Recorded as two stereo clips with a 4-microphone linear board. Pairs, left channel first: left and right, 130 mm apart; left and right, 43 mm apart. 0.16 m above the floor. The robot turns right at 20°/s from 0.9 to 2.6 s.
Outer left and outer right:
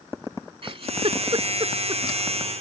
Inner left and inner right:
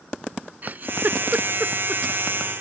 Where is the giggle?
45° right (ahead or behind); by 2.0 s 35° right (ahead or behind).